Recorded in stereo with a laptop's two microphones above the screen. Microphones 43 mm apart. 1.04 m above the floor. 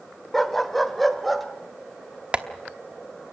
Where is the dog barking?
5° left (ahead or behind), 0.9 m; by 1.5 s centre (ahead or behind), 1.6 m.